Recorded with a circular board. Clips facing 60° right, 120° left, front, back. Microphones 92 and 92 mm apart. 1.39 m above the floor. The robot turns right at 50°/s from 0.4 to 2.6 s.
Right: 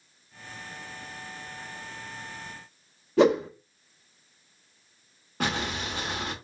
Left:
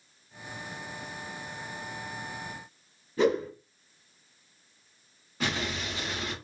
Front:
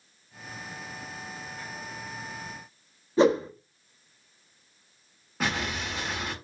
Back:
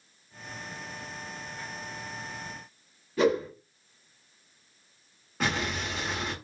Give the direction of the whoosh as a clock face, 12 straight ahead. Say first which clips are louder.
Right 5 dB, front 3 dB; 2 o'clock.